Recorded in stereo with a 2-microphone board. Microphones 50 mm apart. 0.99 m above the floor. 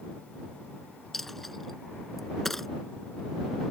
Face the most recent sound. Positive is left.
turn(degrees=5)  # may be behind; listen again after turning